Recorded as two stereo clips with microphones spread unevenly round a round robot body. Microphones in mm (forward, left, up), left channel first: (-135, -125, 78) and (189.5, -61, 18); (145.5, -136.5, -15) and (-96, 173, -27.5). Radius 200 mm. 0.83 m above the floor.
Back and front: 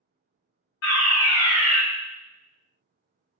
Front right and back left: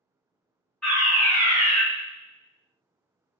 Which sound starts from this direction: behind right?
A fire alarm, at 0.8 s.